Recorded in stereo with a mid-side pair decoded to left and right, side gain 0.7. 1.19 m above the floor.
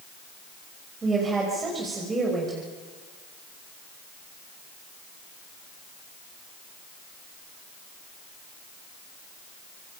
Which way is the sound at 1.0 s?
25° right.